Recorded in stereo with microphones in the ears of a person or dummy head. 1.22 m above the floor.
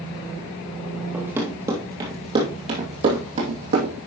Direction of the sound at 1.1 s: 10° right (ahead or behind).